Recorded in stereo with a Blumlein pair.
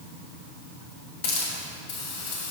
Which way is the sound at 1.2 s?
50° left.